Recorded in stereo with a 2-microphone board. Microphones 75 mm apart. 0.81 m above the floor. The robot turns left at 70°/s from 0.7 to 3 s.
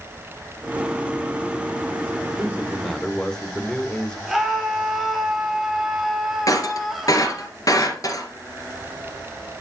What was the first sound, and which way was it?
A man speaking, 150° right.